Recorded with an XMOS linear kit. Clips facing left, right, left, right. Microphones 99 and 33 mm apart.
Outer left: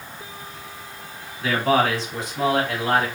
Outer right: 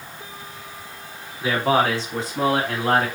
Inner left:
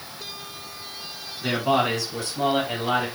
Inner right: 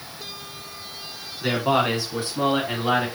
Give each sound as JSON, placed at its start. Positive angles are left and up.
{"t": 1.4, "sound": "a man speaking", "side_deg": -20, "distance_m": 1.6}